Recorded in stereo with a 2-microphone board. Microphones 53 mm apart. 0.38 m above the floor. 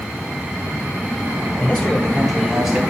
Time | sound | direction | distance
1.6 | a man speaking | 35° left (ahead or behind) | 1.5 m